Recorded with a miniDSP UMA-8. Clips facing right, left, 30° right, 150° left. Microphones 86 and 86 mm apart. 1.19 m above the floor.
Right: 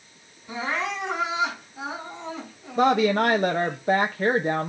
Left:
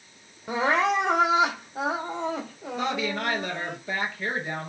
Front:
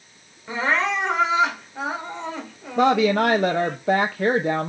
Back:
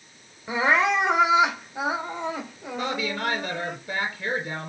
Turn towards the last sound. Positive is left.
turn(degrees=-45)